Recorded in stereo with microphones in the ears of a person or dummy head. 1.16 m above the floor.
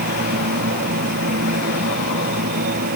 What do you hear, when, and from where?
0.0 s a machine running: 45° right (ahead or behind)